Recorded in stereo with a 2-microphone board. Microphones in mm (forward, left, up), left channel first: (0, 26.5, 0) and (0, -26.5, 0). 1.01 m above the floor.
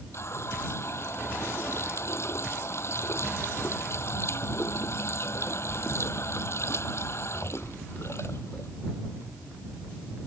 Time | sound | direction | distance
0.1 | a running tap | 55° left (ahead or behind) | ?